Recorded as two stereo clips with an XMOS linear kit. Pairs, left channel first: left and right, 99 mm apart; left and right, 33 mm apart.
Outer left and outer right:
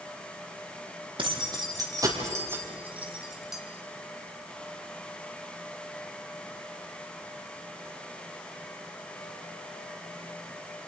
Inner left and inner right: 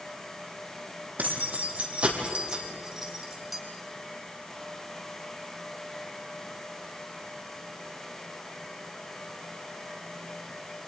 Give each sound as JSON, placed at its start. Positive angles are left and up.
{"t": 1.2, "sound": "keys jangling", "side_deg": -50, "distance_m": 3.5}